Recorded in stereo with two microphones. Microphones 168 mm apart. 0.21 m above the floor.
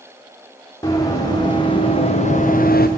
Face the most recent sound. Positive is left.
turn(degrees=70)  # may be behind; listen again after turning